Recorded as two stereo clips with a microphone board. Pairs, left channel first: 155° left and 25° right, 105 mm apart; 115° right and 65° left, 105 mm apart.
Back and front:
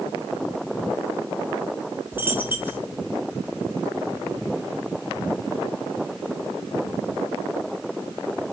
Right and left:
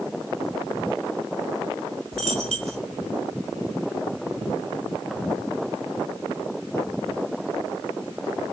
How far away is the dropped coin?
About 0.7 m.